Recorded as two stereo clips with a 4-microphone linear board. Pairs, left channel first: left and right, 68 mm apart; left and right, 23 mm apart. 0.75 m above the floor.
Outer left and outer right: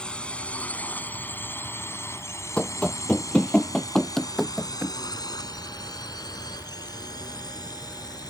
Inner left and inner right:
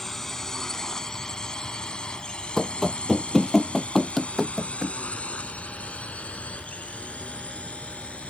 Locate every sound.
0.0 s a drone: 15° left (ahead or behind); by 8.3 s 80° left
2.6 s running footsteps: 15° left (ahead or behind); by 5.0 s centre (ahead or behind)